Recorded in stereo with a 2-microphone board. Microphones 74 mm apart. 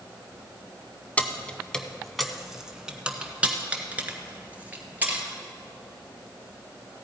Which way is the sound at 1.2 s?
20° left (ahead or behind).